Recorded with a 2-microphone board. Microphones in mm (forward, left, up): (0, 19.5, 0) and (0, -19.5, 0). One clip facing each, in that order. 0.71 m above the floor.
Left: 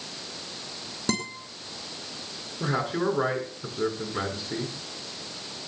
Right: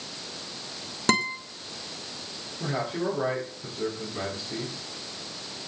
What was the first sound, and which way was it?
A guitar, 60° right (ahead or behind).